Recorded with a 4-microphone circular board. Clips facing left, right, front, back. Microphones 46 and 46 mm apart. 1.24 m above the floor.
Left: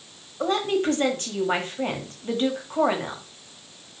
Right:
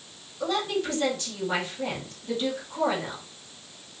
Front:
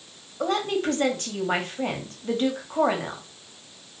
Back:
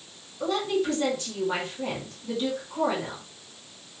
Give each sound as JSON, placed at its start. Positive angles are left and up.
{"t": 0.4, "sound": "a woman speaking", "azimuth_deg": 40, "distance_m": 2.5}